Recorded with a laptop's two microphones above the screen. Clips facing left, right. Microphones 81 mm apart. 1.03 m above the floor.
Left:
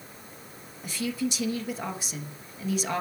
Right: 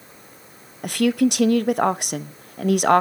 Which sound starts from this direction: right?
A woman speaking, at 0.8 s.